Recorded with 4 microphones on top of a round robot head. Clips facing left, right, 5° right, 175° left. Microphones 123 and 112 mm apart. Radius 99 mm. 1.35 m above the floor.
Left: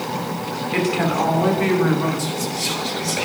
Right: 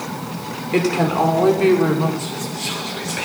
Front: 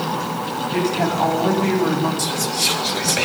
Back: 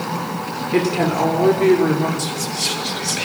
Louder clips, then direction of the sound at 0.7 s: Right 3 dB, back 3 dB; 145° right.